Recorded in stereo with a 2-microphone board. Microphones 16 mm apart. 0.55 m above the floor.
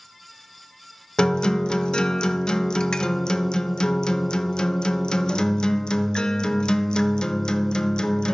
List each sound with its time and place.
1.2 s a guitar: 80° left, 0.6 m